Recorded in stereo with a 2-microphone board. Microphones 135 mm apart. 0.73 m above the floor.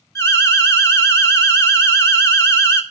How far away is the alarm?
About 1.5 m.